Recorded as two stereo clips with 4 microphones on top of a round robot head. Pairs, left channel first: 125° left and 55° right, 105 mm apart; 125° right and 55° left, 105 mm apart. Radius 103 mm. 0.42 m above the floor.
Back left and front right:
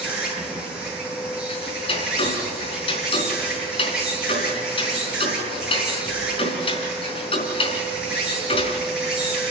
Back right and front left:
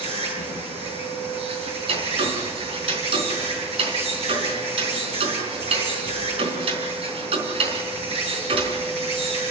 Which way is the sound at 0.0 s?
30° left.